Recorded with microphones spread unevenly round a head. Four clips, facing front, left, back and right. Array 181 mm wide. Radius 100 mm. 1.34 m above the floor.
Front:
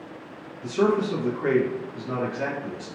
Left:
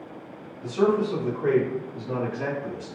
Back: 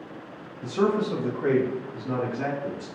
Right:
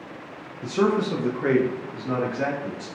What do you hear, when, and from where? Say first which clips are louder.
0.6 s a man speaking: even, front 2 dB; 120° right, 0.7 m; by 2.9 s 75° right, 2.0 m